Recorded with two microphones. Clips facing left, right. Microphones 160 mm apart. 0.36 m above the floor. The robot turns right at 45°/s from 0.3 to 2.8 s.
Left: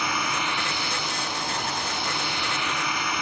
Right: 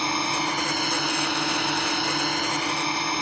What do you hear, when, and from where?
0.0 s a drone: 145° right; by 3.2 s 35° right